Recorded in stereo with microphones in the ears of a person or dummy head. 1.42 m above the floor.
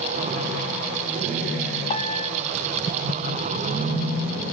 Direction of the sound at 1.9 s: 35° left (ahead or behind).